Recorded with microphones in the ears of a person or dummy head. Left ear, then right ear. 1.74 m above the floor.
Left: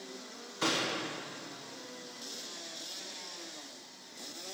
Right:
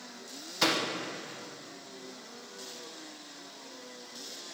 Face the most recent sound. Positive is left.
turn(degrees=-30)  # may be behind; listen again after turning